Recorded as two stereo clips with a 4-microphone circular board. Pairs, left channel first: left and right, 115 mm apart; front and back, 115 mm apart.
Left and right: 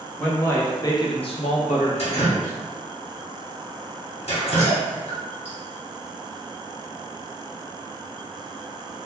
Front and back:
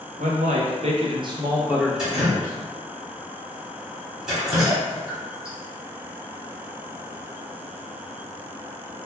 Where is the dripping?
95° left, 1.3 m.